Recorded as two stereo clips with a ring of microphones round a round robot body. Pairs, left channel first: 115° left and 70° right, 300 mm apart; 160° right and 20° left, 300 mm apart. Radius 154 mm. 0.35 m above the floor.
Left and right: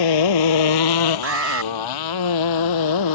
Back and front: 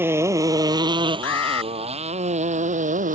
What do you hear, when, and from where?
0.0 s a motorcycle: 105° left; by 3.1 s 90° left
1.2 s an alarm: 115° right